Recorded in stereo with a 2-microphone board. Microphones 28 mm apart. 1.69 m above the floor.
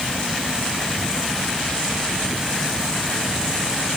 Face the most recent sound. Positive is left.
No sound to turn to.